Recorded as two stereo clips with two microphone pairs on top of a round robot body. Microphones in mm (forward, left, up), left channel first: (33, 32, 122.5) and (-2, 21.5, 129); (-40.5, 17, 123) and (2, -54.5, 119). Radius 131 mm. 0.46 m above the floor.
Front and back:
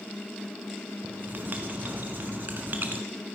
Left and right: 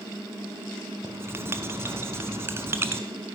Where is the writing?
120° right, 1.0 m.